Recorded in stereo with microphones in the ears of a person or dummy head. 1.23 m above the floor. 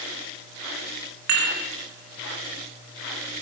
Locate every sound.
1.3 s dishes clattering: 55° right (ahead or behind), 2 m